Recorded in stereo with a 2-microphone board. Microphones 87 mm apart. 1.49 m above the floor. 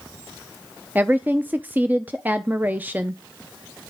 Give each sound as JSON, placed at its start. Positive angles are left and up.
{"t": 0.9, "sound": "a woman speaking", "side_deg": -20, "distance_m": 0.5}